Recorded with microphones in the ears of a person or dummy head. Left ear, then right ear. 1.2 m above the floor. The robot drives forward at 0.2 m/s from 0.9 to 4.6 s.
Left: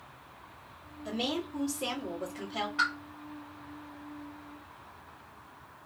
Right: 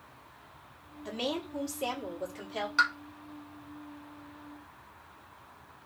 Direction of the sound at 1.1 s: 15° right (ahead or behind).